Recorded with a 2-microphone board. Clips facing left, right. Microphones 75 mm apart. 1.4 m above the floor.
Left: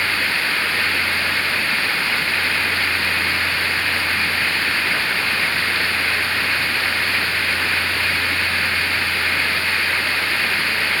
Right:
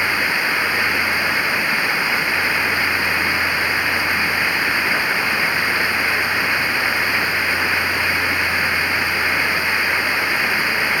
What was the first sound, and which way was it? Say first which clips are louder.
Running water: right 2 dB; 15° right (ahead or behind).